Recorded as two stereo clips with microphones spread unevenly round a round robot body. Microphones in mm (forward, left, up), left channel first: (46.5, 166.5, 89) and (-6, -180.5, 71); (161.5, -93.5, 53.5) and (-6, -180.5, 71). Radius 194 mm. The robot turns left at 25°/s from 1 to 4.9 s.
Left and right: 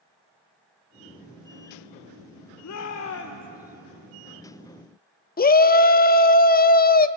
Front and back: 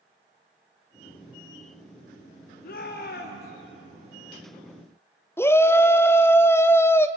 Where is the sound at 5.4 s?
60° left, 0.8 m.